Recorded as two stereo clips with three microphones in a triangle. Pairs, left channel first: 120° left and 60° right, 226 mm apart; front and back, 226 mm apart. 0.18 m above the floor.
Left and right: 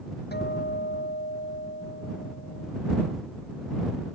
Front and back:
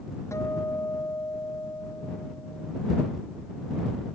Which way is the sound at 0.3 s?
80° left.